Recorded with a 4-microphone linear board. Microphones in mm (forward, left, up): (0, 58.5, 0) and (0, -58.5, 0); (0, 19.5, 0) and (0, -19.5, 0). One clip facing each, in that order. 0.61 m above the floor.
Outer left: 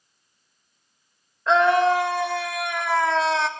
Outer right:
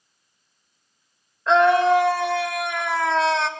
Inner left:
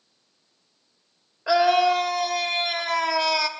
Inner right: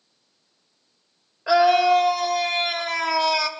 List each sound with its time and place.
1.5 s a scream: centre (ahead or behind), 2 m